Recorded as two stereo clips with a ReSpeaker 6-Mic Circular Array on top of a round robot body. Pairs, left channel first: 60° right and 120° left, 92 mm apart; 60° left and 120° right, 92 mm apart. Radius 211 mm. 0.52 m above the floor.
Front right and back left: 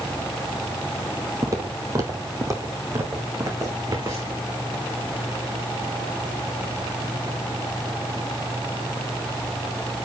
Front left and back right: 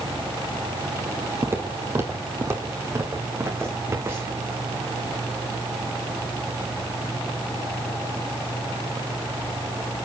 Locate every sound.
1.4 s footsteps: 175° left, 0.7 m